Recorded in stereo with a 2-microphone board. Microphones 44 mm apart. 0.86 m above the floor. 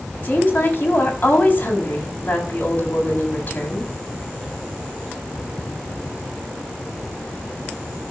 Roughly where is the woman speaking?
Left.